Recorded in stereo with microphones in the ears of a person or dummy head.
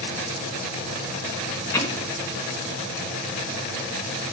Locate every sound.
1.7 s hammering: 10° left (ahead or behind), 1.0 m